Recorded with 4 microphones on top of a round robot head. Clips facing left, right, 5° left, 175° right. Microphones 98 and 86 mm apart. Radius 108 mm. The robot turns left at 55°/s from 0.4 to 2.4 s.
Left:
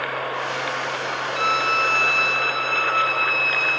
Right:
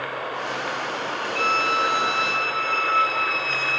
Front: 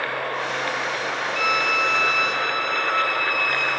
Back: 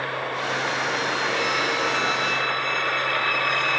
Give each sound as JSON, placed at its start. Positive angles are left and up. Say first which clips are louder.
{"t": 1.4, "sound": "a violin", "louder": "even, front 2 dB", "azimuth_deg": 20, "distance_m": 0.9}